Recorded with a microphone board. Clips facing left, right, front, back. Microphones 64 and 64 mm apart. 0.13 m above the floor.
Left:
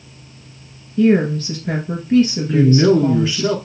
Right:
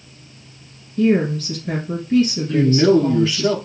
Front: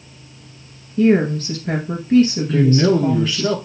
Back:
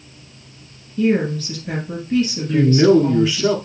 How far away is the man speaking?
About 1.2 m.